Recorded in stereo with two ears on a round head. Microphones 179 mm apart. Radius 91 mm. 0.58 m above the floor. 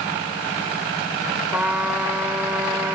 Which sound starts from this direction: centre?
A trumpet, at 1.5 s.